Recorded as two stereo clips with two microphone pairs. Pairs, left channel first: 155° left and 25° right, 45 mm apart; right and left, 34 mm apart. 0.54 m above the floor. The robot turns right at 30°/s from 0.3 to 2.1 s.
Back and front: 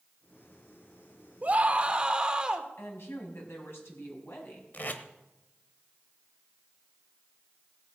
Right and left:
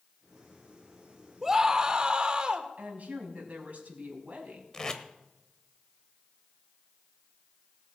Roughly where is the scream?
Ahead.